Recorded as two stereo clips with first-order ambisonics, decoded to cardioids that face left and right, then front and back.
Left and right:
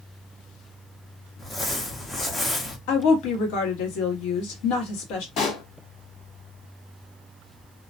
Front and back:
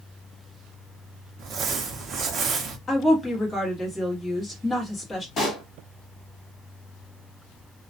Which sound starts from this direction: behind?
Crumpling, at 1.4 s.